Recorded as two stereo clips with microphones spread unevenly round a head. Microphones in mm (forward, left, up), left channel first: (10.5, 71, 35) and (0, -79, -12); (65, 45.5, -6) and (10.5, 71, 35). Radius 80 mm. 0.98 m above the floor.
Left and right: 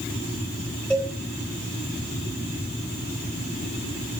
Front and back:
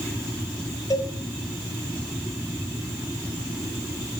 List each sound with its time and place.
0.9 s a cowbell: straight ahead, 3.5 m